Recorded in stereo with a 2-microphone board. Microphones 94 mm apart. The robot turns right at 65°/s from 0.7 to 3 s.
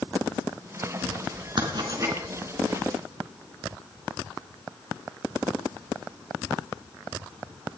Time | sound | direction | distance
1.6 | writing | 60° right (ahead or behind) | 3 m